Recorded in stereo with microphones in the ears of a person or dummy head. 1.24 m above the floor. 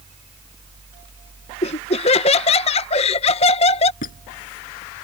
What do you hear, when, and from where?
1.6 s laughter: 35° left (ahead or behind)
4.0 s a squeak: 45° left (ahead or behind)